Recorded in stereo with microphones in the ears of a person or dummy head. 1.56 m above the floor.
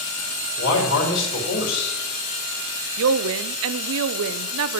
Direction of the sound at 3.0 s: 75° right (ahead or behind).